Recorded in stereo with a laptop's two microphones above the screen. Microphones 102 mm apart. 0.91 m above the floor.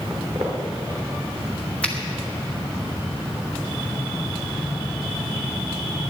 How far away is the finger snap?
About 1.7 m.